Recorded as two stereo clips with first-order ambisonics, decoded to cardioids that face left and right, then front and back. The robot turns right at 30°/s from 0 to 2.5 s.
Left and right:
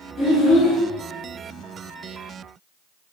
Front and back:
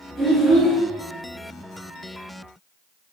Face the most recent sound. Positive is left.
turn(degrees=130)